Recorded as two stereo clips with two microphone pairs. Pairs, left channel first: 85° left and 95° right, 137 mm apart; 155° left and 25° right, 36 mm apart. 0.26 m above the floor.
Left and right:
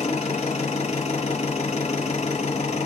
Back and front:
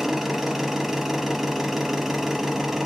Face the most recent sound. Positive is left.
turn(degrees=60)